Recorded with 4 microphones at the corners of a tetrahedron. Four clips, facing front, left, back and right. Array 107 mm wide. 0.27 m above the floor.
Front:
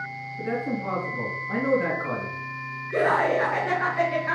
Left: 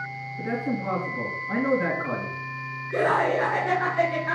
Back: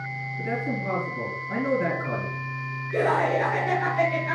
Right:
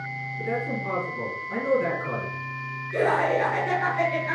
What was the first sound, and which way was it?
A man speaking, 60° left.